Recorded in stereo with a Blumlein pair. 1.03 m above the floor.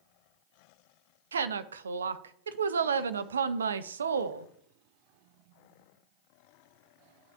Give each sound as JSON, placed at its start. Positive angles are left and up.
{"t": 1.3, "sound": "a woman speaking", "azimuth_deg": -70, "distance_m": 0.6}